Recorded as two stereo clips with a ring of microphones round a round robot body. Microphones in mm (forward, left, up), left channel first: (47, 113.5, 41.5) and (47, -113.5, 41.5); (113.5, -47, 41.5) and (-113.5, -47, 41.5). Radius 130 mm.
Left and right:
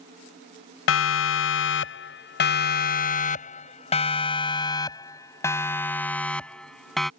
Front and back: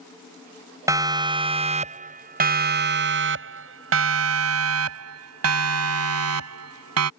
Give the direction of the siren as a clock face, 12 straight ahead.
9 o'clock.